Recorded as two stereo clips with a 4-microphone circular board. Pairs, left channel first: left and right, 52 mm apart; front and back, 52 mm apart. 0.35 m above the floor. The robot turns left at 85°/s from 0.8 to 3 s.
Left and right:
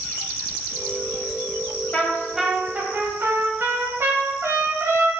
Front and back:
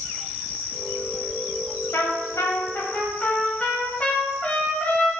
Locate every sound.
1.9 s a trumpet: 25° left, 0.9 m; by 5.1 s 65° right, 0.9 m